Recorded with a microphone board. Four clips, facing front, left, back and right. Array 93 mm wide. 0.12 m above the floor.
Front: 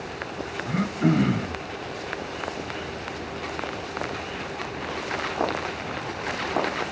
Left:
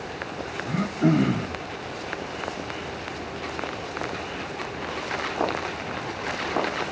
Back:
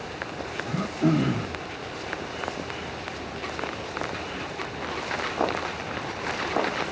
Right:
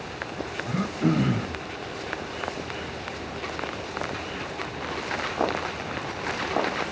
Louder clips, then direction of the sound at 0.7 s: Left 3 dB, front 1 dB; 20° left.